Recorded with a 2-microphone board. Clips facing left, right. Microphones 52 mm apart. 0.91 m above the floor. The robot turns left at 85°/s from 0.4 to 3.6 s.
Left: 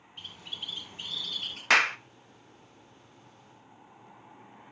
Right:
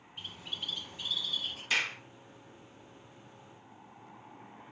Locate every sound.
0.2 s a bird: 165° right, 4.5 m; by 1.6 s 90° left, 4.5 m
1.7 s a clap: 85° left, 0.5 m; by 2.0 s 65° left (ahead or behind), 0.5 m